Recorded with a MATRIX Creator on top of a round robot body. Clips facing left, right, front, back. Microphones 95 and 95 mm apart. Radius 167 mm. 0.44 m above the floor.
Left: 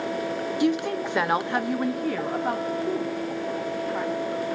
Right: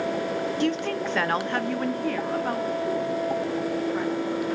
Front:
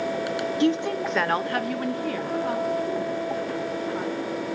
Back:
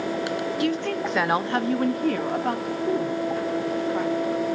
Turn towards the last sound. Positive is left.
turn(degrees=175)